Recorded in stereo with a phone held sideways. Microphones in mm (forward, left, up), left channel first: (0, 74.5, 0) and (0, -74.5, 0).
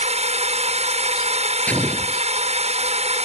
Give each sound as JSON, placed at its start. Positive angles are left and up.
{"t": 0.0, "sound": "a drone", "side_deg": -45}
{"t": 1.7, "sound": "an explosion", "side_deg": 10}